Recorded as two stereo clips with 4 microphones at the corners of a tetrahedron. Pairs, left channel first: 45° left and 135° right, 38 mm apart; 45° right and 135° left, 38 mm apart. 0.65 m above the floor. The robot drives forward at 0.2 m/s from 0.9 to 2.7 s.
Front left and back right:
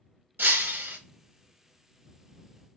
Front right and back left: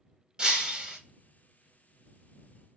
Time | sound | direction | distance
0.4 | breaking glass | 160° right | 0.8 m